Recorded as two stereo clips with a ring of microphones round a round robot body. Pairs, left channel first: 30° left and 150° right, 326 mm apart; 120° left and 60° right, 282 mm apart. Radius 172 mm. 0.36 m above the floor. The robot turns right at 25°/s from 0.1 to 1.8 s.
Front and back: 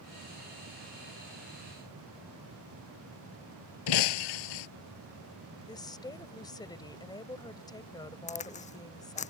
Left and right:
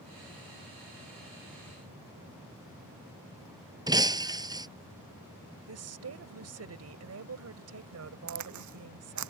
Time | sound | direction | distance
3.9 | breaking glass | 15° left | ?
5.7 | a woman speaking | 45° right | ?
8.3 | a crack | 40° right | ?